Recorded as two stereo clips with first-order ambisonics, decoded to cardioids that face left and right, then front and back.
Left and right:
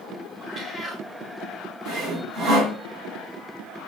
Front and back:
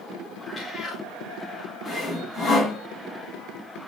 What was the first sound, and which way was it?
A cat meowing, 40° right.